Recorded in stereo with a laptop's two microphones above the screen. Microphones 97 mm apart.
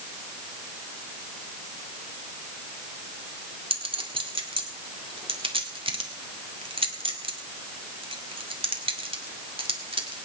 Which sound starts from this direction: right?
A clink, at 3.7 s.